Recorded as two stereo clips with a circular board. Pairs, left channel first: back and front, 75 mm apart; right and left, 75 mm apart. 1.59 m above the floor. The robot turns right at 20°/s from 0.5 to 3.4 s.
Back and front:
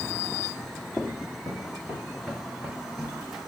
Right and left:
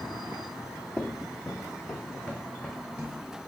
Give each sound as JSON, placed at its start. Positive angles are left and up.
{"t": 1.0, "sound": "footsteps", "azimuth_deg": -145, "distance_m": 1.9}